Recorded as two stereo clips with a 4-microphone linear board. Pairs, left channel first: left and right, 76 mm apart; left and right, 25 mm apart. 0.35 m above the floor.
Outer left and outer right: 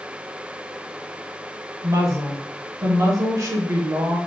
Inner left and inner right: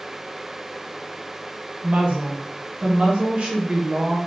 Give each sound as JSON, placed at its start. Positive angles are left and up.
{"t": 1.8, "sound": "a woman speaking", "side_deg": -50, "distance_m": 1.3}